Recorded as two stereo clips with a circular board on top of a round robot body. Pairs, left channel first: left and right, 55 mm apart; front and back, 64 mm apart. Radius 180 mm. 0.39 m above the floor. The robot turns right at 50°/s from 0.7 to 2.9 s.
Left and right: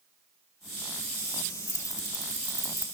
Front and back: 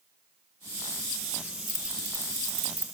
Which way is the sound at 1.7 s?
85° left.